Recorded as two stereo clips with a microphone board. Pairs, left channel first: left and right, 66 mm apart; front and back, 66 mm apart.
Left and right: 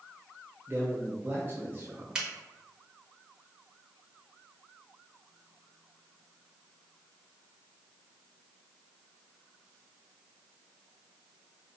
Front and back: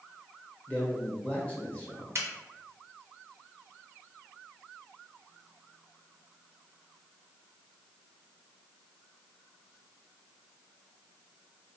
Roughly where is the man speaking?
Ahead right.